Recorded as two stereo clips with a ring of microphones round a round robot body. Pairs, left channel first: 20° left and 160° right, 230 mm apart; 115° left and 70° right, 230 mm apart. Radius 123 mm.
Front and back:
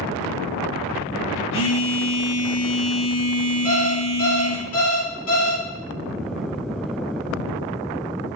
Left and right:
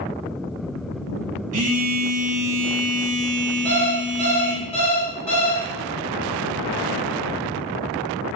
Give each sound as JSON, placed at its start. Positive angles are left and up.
{"t": 1.5, "sound": "a phone buzzing", "azimuth_deg": -10, "distance_m": 1.1}
{"t": 3.6, "sound": "an alarm clock", "azimuth_deg": 50, "distance_m": 1.4}